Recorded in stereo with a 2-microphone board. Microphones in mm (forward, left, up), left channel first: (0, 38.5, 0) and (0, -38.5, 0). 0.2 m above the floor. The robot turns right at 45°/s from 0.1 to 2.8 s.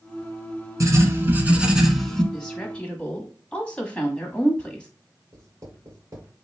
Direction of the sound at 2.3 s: 10° left (ahead or behind).